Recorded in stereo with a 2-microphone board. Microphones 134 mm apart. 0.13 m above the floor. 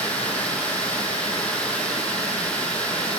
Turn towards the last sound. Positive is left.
turn(degrees=10)  # may be behind; listen again after turning